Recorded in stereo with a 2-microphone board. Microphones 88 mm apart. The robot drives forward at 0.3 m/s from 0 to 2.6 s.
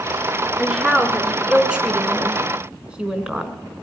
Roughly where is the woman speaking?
Centre.